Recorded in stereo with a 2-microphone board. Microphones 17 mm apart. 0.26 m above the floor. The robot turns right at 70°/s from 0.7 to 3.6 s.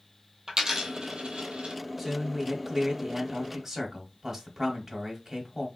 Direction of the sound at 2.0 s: 150° right.